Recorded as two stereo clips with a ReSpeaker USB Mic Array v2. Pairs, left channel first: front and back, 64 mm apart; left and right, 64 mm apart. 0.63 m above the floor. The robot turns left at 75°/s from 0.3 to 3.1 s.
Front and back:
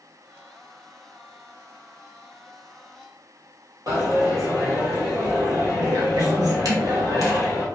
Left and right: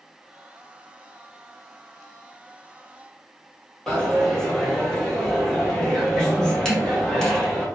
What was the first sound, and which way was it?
A dropped coin, 170° left.